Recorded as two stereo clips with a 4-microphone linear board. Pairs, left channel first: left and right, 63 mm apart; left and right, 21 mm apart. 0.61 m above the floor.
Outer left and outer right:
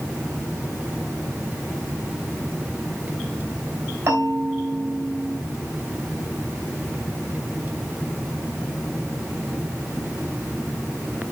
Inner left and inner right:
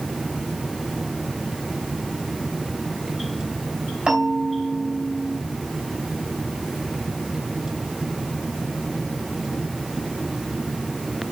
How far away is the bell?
About 4 m.